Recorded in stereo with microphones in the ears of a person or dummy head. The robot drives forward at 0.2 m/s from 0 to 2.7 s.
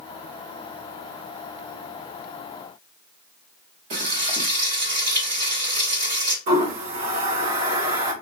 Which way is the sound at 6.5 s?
50° right (ahead or behind).